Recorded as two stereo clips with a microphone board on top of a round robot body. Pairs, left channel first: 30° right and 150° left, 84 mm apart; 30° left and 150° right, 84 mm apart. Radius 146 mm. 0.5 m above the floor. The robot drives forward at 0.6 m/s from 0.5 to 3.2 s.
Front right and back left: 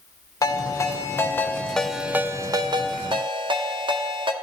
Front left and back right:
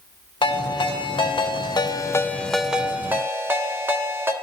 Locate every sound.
0.4 s a ringtone: 20° left, 1.2 m; by 4.3 s 150° left, 0.8 m